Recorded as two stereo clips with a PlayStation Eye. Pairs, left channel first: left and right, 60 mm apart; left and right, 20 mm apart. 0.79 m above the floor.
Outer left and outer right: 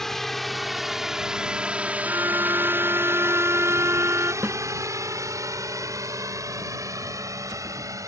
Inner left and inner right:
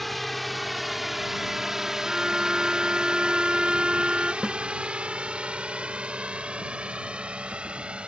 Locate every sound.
0.0 s a drone: 5° left (ahead or behind); by 8.1 s 60° right (ahead or behind)
2.0 s a violin: 45° right (ahead or behind)
4.4 s a snare drum: 25° right (ahead or behind)